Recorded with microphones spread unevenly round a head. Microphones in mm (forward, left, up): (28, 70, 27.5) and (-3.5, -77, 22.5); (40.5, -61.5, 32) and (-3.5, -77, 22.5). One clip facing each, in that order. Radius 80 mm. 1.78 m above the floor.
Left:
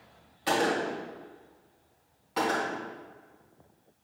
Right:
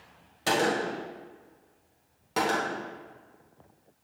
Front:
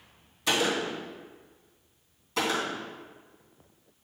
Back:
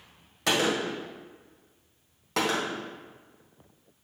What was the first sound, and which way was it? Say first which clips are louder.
A gunshot: right 1 dB, back 1 dB; 145° right.